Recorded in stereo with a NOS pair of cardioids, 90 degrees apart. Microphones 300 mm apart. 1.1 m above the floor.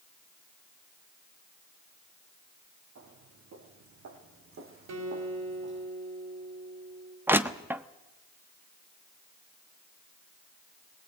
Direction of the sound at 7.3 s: 5° right.